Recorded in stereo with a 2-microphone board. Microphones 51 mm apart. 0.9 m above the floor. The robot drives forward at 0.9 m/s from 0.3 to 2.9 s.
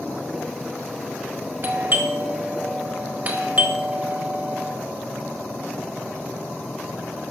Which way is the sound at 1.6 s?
45° right (ahead or behind).